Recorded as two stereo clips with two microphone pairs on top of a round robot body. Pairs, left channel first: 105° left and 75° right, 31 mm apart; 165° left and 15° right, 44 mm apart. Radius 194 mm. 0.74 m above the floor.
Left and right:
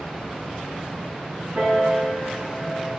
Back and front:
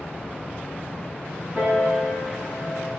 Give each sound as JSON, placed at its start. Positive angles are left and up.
{"t": 1.6, "sound": "a piano", "azimuth_deg": -65, "distance_m": 4.5}